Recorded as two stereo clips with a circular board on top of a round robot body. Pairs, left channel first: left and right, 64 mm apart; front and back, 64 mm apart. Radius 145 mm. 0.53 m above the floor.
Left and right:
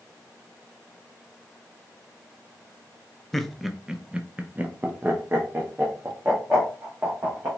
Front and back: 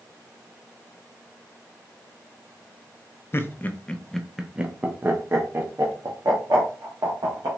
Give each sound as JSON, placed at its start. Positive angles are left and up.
{"t": 3.3, "sound": "laughter", "azimuth_deg": 10, "distance_m": 0.8}